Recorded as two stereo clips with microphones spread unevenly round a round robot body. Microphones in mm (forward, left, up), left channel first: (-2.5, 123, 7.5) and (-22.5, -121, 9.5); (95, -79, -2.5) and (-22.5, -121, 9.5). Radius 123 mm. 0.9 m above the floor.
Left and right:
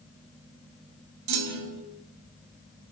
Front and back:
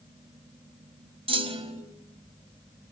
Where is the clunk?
120° right, 2.5 m.